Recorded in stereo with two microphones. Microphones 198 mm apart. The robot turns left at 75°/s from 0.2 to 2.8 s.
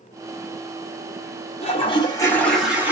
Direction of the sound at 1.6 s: 75° left.